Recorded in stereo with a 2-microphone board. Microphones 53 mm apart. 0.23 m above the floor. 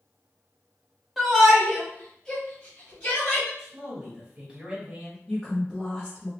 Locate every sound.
1.2 s a shout: 5° right (ahead or behind), 1.4 m; by 3.5 s 30° left (ahead or behind), 1.6 m
3.6 s a man speaking: 20° right (ahead or behind), 1.8 m
5.3 s a woman speaking: 10° left (ahead or behind), 1.5 m